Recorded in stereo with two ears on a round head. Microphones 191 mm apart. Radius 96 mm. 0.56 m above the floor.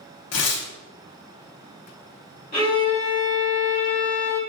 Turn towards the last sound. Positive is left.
turn(degrees=35)  # may be behind; listen again after turning